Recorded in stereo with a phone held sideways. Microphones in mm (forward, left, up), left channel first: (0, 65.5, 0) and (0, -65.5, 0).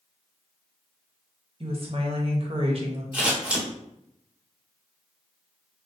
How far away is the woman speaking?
About 0.8 m.